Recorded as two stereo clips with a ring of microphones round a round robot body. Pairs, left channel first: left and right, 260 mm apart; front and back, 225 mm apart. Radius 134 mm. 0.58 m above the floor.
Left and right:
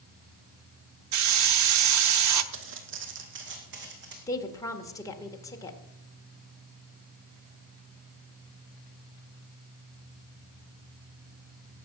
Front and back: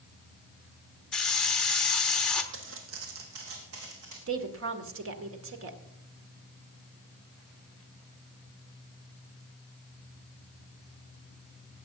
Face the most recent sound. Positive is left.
turn(degrees=165)